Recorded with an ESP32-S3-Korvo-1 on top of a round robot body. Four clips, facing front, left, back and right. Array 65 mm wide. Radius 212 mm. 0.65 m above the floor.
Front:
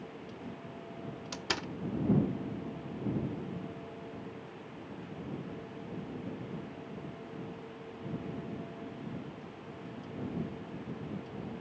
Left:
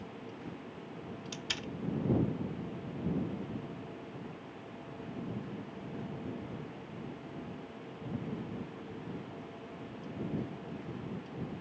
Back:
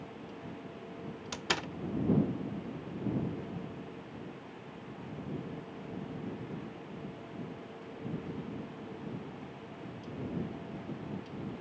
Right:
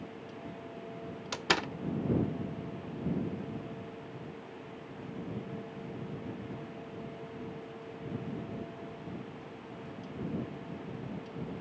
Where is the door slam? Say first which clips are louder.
Right 13 dB, back 2 dB; 100° right.